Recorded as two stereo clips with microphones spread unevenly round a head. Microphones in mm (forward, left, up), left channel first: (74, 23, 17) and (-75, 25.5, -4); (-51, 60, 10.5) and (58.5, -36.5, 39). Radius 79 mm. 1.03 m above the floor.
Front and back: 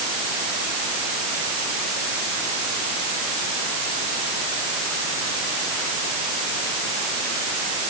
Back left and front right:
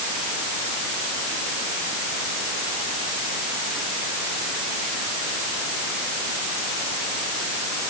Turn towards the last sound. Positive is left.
No sound to turn to.